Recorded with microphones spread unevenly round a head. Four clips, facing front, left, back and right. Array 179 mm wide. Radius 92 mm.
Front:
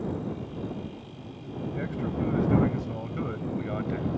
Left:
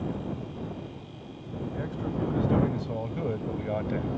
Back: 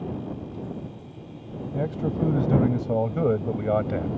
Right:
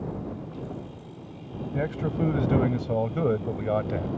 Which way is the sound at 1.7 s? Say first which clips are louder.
Right 5 dB, back 5 dB; 140° right.